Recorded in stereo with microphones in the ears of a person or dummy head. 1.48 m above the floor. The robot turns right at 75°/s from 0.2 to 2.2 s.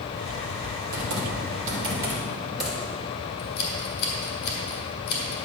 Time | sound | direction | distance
0.9 | typing on a keyboard | 80° right | 2.5 m
3.4 | scissors | 60° left (ahead or behind) | 3 m